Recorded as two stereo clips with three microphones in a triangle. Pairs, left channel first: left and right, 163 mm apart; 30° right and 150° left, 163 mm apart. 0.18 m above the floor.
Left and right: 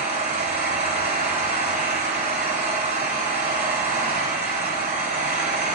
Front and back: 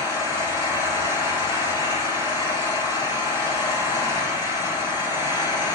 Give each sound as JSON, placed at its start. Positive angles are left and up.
{"t": 0.0, "sound": "an engine running", "azimuth_deg": -95, "distance_m": 5.0}